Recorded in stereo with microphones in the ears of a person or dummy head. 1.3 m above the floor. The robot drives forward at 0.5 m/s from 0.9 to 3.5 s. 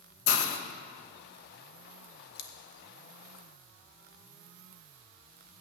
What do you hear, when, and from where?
0.3 s a hiss: 75° left (ahead or behind), 1.1 m
2.4 s scissors: 55° left (ahead or behind), 1.4 m